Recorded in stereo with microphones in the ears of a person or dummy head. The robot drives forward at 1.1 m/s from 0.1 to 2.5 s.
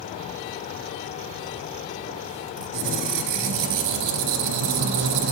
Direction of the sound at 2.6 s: 60° right (ahead or behind).